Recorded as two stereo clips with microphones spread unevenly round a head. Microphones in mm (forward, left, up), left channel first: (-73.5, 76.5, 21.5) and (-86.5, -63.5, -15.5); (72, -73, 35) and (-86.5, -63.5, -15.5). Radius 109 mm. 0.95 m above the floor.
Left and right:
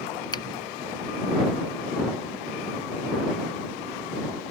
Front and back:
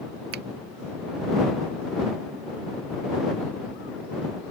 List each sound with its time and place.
0.3 s a finger snap: 150° left